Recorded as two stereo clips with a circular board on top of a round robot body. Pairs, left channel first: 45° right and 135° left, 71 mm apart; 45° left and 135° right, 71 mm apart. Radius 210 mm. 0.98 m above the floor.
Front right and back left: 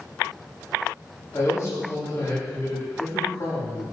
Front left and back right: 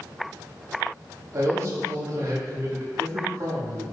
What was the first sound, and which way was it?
A man speaking, 90° right.